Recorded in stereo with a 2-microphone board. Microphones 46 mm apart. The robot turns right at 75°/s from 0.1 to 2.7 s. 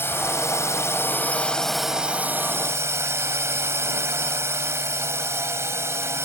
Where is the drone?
55° left; by 6.3 s 110° right.